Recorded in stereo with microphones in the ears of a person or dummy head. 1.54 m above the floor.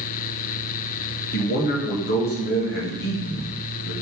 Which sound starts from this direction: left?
A man speaking, at 1.3 s.